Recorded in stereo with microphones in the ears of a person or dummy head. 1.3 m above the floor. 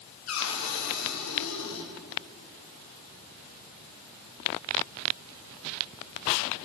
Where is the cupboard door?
85° left, 6.5 m.